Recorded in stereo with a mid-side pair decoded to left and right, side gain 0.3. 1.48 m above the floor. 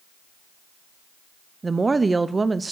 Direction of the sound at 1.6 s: 40° right.